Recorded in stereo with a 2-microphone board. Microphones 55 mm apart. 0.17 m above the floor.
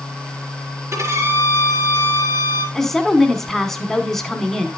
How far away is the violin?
About 2.5 m.